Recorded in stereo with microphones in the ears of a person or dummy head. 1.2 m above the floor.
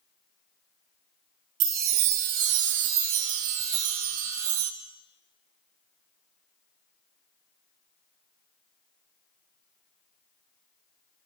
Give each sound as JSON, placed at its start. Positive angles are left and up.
{"t": 1.6, "sound": "a chime", "side_deg": -65, "distance_m": 0.6}